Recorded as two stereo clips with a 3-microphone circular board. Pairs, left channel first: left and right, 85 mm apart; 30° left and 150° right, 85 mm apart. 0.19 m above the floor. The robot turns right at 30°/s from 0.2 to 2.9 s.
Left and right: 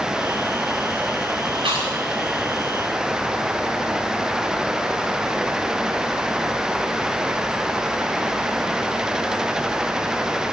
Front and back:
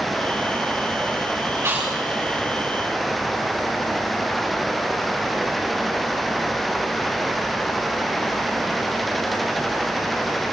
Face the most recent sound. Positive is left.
turn(degrees=-45)